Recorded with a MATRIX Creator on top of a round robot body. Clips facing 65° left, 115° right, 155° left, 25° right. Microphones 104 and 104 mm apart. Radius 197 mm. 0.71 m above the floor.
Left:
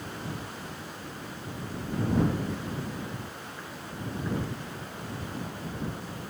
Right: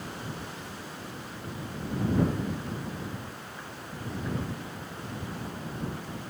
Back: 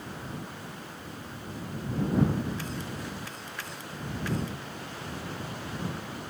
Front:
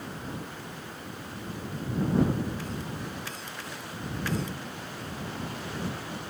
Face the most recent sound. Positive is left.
No sound to turn to.